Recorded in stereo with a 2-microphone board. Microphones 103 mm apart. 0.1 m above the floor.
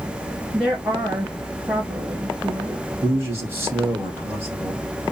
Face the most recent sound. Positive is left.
turn(degrees=-20)  # may be behind; listen again after turning